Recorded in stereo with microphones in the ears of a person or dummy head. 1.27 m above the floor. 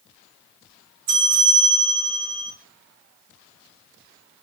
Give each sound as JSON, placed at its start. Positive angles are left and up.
{"t": 1.1, "sound": "a bell", "side_deg": -50, "distance_m": 2.5}